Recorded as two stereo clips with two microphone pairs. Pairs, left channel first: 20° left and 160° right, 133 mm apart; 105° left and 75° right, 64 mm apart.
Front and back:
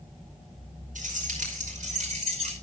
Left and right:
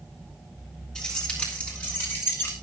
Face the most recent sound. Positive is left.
turn(degrees=160)